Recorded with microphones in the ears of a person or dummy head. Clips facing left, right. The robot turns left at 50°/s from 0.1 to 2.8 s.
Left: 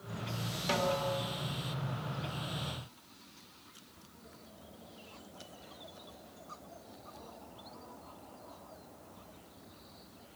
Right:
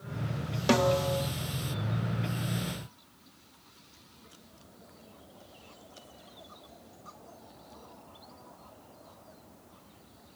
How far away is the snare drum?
About 1.1 m.